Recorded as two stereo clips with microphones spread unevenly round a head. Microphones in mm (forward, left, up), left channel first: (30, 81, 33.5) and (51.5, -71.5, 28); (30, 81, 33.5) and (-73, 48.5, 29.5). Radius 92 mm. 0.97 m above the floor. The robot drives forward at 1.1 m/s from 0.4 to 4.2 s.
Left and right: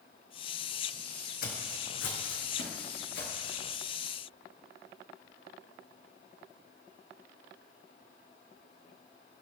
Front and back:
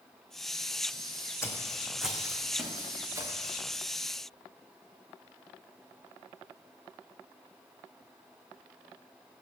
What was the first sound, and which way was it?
Footsteps, 80° left.